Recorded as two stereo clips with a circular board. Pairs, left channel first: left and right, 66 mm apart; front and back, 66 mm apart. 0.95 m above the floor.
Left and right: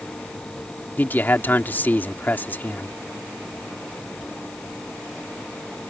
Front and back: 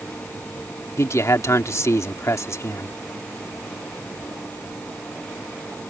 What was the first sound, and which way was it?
A man speaking, 35° left.